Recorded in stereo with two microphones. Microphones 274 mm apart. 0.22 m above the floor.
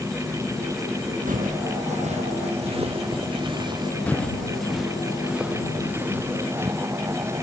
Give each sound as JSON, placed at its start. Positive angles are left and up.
{"t": 0.0, "sound": "an insect", "side_deg": 0}
{"t": 1.3, "sound": "footsteps", "side_deg": -30}
{"t": 4.1, "sound": "footsteps", "side_deg": 5}